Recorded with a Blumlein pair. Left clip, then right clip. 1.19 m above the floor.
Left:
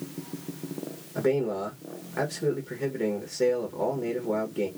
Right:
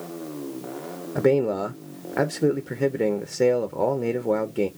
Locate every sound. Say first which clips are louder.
1.1 s a man speaking: right 5 dB; 25° right, 0.7 m